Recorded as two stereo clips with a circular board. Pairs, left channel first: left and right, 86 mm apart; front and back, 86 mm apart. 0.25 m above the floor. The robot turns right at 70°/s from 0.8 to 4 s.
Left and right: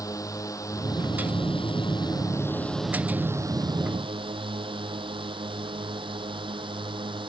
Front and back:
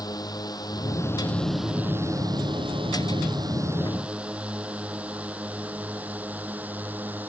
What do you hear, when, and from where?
0.0 s a drone: 40° left; by 7.3 s 110° right